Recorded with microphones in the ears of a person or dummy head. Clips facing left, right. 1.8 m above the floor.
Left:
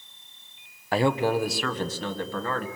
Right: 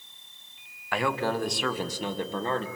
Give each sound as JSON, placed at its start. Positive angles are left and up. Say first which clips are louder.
{"t": 0.9, "sound": "a man speaking", "louder": "left 5 dB", "side_deg": 25, "distance_m": 1.1}